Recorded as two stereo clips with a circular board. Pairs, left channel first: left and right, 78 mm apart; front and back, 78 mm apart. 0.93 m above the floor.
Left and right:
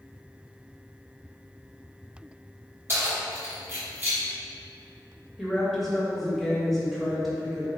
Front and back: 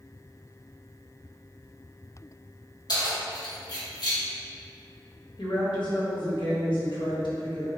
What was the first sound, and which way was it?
Keys jangling, 30° right.